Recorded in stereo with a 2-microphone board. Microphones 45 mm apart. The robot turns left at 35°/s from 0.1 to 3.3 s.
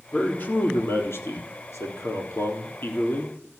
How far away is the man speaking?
About 3.5 m.